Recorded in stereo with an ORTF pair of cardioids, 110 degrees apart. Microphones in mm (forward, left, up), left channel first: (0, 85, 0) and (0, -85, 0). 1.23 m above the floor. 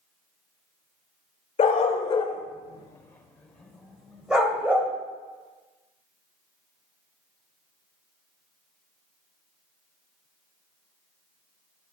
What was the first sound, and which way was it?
A dog barking, 45° left.